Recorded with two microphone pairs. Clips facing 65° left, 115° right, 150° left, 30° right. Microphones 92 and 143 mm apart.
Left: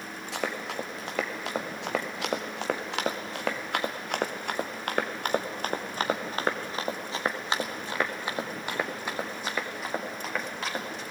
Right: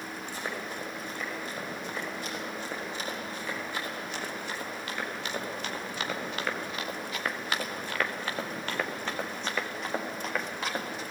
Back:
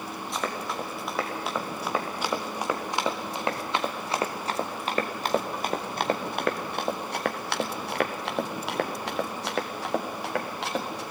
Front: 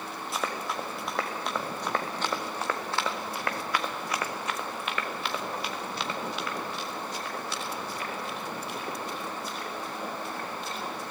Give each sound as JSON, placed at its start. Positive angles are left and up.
{"t": 0.3, "sound": "running footsteps", "azimuth_deg": 60, "distance_m": 3.5}